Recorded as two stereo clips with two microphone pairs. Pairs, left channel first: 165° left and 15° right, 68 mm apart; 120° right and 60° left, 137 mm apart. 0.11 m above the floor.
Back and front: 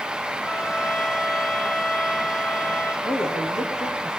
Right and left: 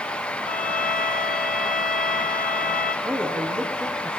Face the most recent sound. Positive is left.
turn(degrees=135)